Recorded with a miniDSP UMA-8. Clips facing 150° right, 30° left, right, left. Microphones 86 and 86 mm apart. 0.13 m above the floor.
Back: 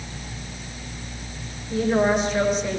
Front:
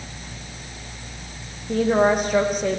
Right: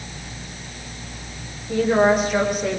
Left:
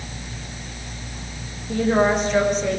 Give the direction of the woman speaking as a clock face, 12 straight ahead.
12 o'clock.